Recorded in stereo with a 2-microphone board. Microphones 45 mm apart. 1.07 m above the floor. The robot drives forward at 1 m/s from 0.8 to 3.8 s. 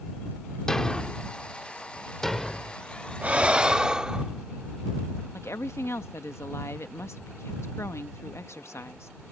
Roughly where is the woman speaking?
Left.